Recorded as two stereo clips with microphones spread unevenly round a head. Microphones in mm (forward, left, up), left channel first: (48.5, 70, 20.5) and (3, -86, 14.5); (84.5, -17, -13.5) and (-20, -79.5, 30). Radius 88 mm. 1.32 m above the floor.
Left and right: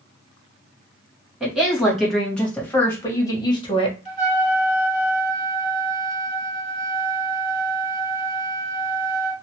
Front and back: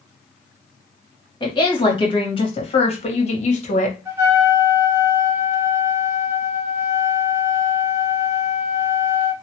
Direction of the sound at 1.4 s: 20° right.